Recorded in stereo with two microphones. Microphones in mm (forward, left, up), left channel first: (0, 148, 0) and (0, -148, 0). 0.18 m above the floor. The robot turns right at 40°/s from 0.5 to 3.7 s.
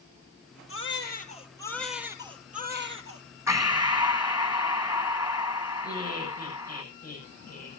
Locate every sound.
0.7 s a baby crying: 130° left, 3 m; by 3.2 s 125° right, 3 m
3.5 s breathing: 10° right (ahead or behind), 1.7 m; by 6.8 s 15° right (ahead or behind), 1.7 m
5.8 s laughter: 30° left (ahead or behind), 8.5 m